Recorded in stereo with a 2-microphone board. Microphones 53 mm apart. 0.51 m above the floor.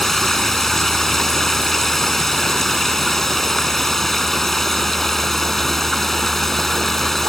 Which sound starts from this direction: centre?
Running water, at 0.0 s.